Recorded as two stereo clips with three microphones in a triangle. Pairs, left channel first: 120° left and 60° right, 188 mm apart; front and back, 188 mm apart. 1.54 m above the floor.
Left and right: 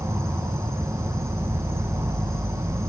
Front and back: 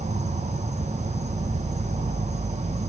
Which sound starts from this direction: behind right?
An insect, at 0.0 s.